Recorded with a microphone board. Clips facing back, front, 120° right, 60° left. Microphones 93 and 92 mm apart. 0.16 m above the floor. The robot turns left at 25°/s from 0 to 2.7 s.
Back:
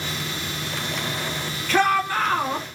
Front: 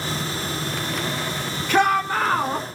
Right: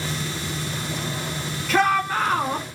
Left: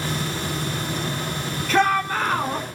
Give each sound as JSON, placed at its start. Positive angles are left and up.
{"t": 1.7, "sound": "a shout", "azimuth_deg": -40, "distance_m": 1.1}